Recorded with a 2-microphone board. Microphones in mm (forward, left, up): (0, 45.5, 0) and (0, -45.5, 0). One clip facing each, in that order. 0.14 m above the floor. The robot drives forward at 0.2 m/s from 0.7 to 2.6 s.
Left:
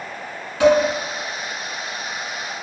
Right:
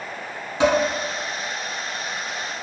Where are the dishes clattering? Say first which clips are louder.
Left 4 dB; 25° right (ahead or behind), 1.0 m.